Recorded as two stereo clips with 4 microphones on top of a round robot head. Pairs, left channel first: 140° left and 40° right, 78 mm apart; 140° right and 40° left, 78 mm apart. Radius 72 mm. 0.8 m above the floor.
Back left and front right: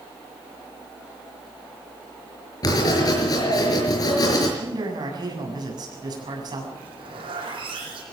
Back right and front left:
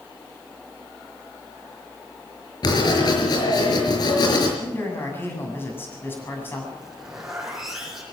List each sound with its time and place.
2.6 s writing: 175° right, 5.5 m
4.6 s a man speaking: 75° right, 7.5 m
6.8 s a zipper: 45° right, 8 m